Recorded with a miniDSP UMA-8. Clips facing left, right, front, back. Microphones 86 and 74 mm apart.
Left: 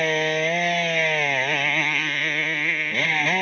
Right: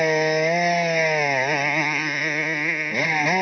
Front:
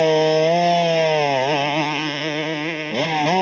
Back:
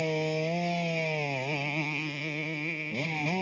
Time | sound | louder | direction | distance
0.0 | a motorcycle | right 3 dB, front 14 dB | 10° right | ?